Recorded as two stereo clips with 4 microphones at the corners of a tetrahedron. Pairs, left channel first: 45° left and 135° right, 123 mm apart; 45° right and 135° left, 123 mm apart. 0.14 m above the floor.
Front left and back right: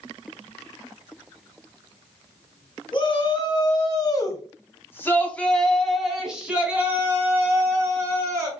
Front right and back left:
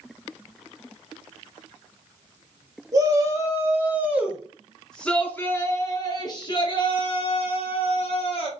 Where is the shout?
85° left, 1.8 m; by 8.5 s 70° right, 2.5 m.